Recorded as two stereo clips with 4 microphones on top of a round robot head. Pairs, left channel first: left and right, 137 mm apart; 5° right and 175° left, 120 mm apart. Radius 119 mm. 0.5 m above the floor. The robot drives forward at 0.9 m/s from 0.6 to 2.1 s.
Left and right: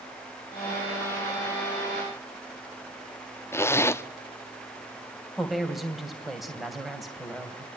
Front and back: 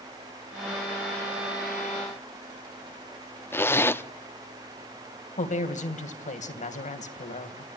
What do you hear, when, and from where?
3.5 s a zipper: 45° left, 1.0 m
5.4 s a woman speaking: straight ahead, 3 m